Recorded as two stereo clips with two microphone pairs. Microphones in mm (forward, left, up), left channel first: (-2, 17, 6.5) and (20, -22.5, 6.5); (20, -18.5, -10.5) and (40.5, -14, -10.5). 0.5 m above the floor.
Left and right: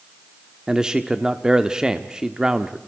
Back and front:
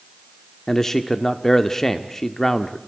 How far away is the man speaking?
About 0.9 m.